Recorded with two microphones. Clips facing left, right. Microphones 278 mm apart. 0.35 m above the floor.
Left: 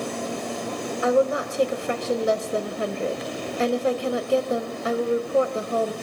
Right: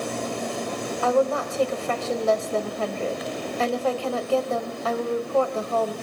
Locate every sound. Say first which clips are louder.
1.0 s a woman speaking: left 1 dB; 20° left (ahead or behind), 1.3 m